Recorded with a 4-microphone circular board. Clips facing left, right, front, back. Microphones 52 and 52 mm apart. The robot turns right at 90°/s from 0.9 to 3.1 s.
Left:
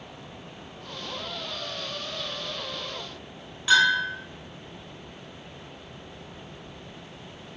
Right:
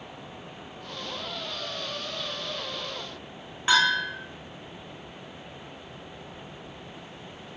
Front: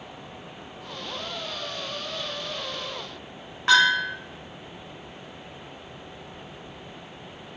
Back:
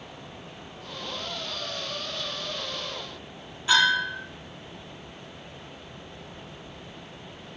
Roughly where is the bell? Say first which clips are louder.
Left 2 dB, front 3 dB; ahead right.